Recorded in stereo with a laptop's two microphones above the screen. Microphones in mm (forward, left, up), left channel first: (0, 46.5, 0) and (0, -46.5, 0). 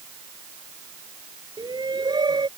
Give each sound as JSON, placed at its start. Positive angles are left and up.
{"t": 1.6, "sound": "a shout", "side_deg": -50}